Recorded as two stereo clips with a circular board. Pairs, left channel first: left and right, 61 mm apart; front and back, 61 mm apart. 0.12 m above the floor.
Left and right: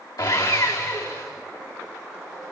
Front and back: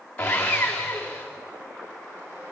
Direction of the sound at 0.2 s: 70° left.